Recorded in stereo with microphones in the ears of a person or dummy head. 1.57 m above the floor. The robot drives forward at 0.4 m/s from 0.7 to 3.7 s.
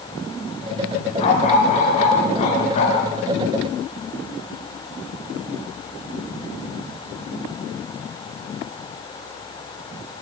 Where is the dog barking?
35° left (ahead or behind), 7.5 m; by 3.1 s 30° left (ahead or behind), 8 m.